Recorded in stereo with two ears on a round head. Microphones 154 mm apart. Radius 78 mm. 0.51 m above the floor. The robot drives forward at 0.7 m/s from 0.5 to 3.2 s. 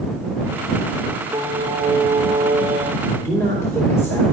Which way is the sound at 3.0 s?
20° left (ahead or behind).